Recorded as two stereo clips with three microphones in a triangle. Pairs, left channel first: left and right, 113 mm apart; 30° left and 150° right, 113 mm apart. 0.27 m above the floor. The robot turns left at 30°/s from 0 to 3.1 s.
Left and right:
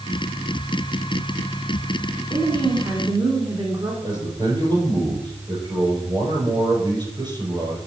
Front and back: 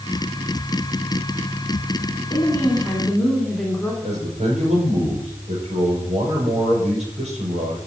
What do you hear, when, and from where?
2.3 s a woman speaking: 35° right, 2 m; by 3.9 s 55° right, 2 m
4.0 s a man speaking: 140° right, 5.5 m